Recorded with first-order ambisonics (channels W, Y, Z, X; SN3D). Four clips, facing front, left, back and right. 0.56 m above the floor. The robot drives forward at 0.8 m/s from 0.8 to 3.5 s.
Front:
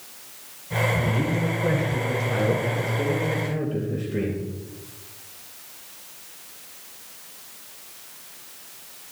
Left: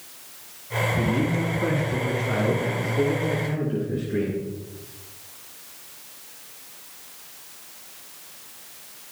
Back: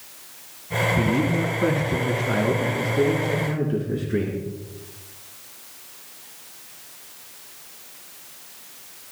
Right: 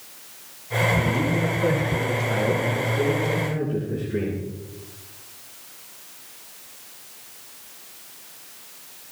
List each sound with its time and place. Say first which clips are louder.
1.0 s a man speaking: right 1 dB, back 3 dB; 165° left, 5 m; by 4.4 s 170° left, 7 m